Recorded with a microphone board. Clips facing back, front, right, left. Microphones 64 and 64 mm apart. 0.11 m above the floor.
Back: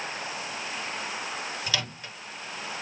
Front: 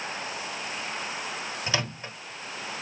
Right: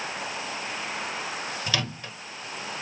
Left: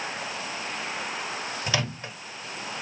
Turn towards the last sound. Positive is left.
turn(degrees=40)